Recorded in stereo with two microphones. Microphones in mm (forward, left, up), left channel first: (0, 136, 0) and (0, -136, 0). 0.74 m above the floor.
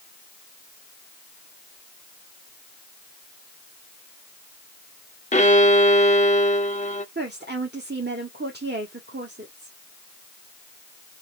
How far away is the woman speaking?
About 1.2 m.